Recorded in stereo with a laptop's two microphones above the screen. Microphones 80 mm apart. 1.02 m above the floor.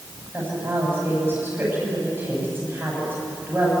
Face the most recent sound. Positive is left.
turn(degrees=-25)  # may be behind; listen again after turning